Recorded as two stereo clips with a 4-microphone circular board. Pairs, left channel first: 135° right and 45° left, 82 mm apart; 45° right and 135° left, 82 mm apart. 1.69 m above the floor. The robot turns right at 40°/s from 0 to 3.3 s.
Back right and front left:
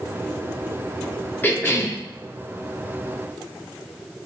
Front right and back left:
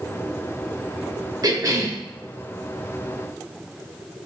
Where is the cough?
160° left, 1.0 m; by 2.0 s 175° right, 1.0 m.